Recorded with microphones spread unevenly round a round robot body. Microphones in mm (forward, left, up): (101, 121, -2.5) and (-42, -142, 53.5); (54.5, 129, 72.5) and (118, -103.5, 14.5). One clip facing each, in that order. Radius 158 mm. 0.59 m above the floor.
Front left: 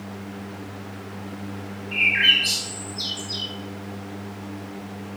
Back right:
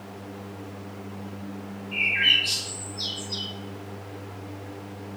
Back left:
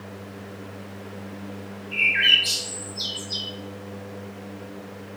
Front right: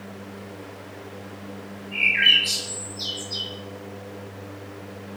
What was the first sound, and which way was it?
A bird, 130° left.